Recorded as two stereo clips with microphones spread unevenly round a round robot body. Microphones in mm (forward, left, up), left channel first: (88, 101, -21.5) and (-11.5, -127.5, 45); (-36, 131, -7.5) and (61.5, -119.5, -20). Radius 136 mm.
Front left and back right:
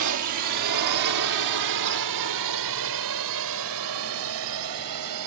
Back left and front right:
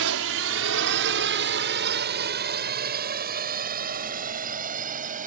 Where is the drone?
100° right; by 5.3 s 130° right.